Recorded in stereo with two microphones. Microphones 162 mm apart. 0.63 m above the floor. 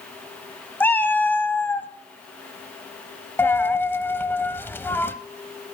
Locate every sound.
0.8 s a cat meowing: 10° left (ahead or behind), 1.1 m
3.4 s a dropped coin: 15° left (ahead or behind), 0.8 m